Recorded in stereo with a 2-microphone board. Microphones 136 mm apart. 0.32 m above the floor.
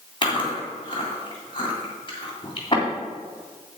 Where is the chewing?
35° left (ahead or behind), 3 m.